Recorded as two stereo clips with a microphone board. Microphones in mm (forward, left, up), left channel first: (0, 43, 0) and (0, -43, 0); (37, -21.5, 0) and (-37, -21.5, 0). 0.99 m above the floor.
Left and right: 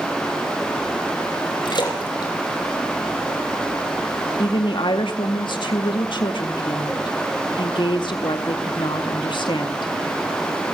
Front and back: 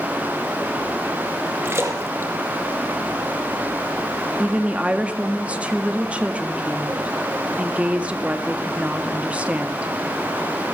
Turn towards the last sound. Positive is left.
turn(degrees=105)